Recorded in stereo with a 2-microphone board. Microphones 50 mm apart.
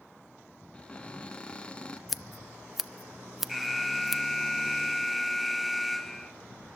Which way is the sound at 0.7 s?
20° left (ahead or behind).